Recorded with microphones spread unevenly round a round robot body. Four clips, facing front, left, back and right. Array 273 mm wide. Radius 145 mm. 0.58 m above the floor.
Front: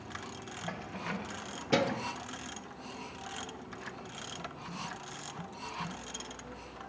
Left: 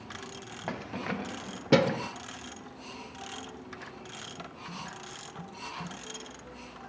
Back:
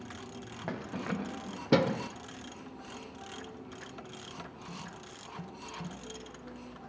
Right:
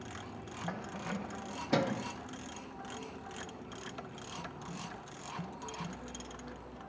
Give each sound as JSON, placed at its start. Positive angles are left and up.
{"t": 0.7, "sound": "keys jangling", "azimuth_deg": 145, "distance_m": 0.6}